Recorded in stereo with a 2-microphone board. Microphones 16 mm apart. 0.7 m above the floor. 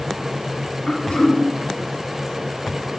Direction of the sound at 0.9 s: 70° left (ahead or behind).